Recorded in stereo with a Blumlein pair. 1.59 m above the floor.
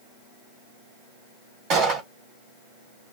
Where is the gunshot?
35° right, 1.5 m.